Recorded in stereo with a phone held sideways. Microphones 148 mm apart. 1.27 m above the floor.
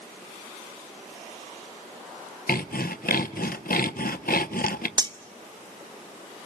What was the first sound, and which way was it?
Sawing, 85° left.